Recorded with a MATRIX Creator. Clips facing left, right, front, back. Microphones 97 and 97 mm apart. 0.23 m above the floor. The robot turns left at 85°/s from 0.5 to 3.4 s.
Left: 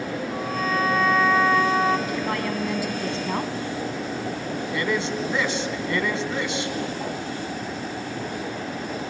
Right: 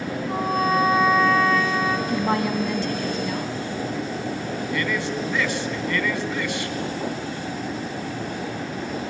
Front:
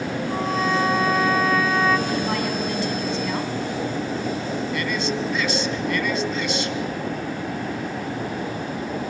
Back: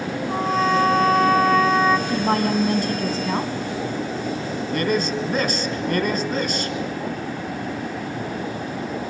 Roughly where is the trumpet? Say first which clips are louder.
Right 6 dB, back 3 dB; behind right.